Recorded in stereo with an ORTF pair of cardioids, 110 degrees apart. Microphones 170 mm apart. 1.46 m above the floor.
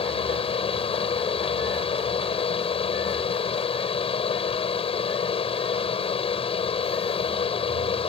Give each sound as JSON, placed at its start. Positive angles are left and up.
{"t": 0.0, "sound": "a fan", "azimuth_deg": 35}